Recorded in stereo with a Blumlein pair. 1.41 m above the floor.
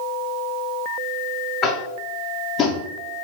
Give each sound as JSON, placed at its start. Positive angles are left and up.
{"t": 1.6, "sound": "tapping", "azimuth_deg": 30, "distance_m": 0.6}